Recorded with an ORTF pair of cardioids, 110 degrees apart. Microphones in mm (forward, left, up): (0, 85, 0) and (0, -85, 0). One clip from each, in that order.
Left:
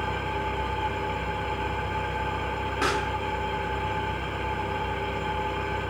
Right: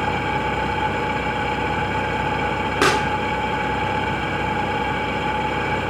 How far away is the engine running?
About 1.6 m.